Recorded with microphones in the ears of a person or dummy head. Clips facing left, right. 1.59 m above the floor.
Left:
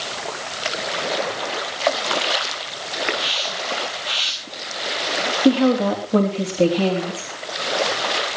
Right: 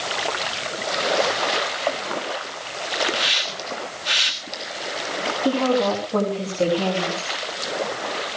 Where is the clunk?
No clunk in this recording.